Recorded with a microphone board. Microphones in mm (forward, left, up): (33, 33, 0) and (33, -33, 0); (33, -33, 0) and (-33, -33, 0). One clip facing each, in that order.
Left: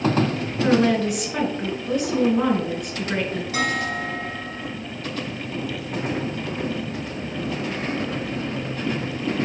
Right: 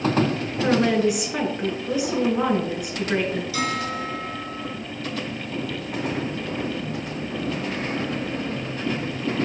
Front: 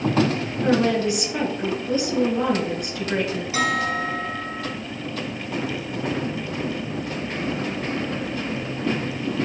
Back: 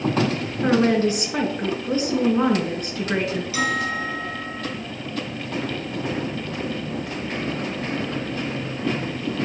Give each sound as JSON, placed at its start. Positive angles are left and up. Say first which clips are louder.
{"t": 0.6, "sound": "a woman speaking", "louder": "left 1 dB, back 2 dB", "azimuth_deg": -170, "distance_m": 1.8}
{"t": 3.5, "sound": "a bell", "louder": "left 2 dB, front 3 dB", "azimuth_deg": 55, "distance_m": 2.5}